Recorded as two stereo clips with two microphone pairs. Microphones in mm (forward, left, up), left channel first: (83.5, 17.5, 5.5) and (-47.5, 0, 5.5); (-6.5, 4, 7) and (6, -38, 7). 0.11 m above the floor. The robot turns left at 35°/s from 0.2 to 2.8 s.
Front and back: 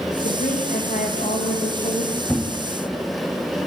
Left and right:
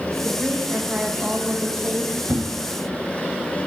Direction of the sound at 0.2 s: 35° left.